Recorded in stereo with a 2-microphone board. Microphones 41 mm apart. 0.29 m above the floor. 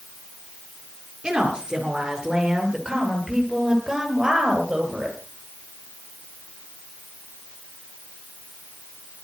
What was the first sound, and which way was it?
A woman speaking, 20° right (ahead or behind).